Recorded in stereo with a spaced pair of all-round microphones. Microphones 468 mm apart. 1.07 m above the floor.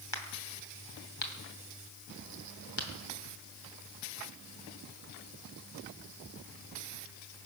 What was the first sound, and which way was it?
A crack, 75° left (ahead or behind).